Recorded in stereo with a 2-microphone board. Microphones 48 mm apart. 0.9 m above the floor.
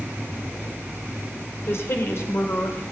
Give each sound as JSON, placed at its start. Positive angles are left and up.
{"t": 1.7, "sound": "a woman speaking", "side_deg": 65, "distance_m": 2.5}